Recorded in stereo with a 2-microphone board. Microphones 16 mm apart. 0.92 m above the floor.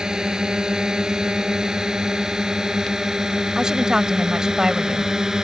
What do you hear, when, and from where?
0.0 s a drone: 45° right (ahead or behind); by 5.5 s 35° right (ahead or behind)
3.5 s a woman speaking: 45° right (ahead or behind)